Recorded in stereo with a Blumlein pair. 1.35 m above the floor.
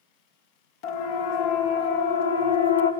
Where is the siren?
50° left, 3 m; by 2.9 s 75° left, 1.7 m.